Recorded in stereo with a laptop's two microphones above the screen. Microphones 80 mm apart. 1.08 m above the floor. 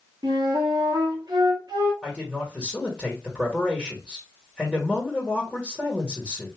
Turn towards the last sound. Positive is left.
turn(degrees=-5)  # may be behind; listen again after turning